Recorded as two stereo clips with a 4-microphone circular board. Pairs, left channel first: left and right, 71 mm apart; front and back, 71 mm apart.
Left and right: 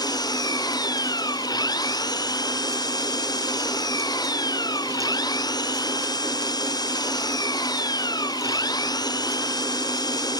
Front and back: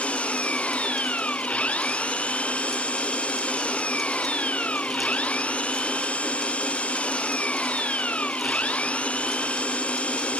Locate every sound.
0.0 s an engine running: 75° left